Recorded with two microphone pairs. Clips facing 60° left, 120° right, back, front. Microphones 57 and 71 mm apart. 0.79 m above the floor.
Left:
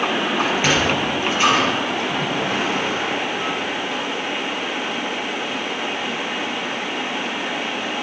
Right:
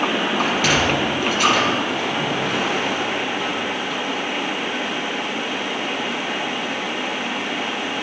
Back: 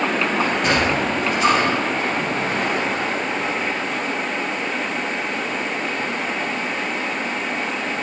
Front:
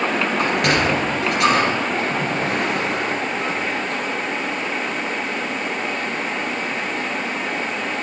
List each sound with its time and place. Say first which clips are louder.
0.4 s a sliding door: even, front 1 dB; 10° right, 2.5 m